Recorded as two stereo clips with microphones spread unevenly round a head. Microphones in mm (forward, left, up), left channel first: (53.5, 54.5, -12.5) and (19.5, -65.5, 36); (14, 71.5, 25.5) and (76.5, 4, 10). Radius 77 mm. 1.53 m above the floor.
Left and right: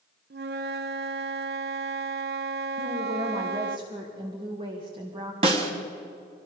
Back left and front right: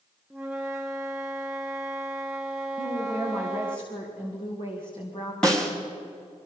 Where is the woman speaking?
170° right, 2.0 m.